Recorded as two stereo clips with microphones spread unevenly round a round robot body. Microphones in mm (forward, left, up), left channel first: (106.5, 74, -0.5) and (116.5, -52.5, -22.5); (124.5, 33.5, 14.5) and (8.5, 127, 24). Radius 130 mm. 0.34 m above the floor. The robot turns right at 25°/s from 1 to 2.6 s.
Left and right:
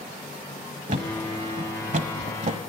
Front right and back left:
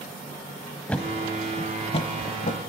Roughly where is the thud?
Behind right.